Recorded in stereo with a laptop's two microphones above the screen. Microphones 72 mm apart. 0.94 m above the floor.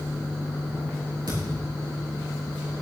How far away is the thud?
About 6.5 m.